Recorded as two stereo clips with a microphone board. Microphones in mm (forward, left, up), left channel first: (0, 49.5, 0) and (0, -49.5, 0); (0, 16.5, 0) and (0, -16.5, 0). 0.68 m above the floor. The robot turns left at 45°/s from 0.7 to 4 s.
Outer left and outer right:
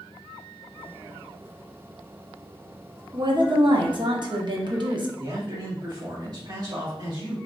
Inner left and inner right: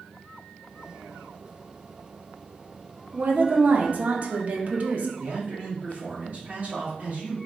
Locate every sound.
3.1 s a woman speaking: 65° right, 0.7 m; by 5.1 s 105° right, 0.7 m
5.2 s a man speaking: 45° right (ahead or behind), 1.6 m